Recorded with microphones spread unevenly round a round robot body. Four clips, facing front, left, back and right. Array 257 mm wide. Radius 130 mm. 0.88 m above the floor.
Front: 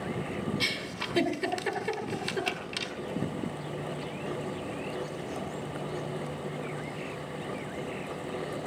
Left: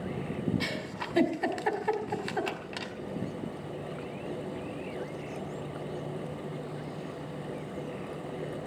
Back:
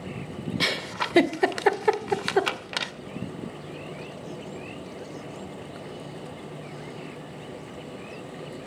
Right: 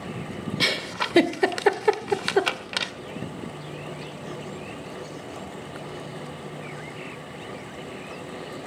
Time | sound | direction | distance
0.6 | a giggle | 120° right | 2.0 m